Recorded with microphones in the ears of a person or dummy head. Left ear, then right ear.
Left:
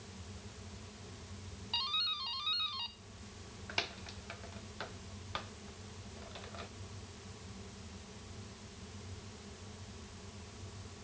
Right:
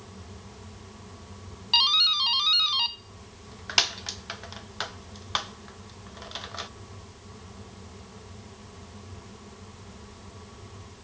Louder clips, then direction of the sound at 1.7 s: Right 15 dB; 45° right (ahead or behind).